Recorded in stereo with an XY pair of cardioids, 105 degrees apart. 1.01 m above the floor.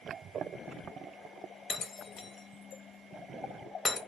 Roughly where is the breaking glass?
Ahead left.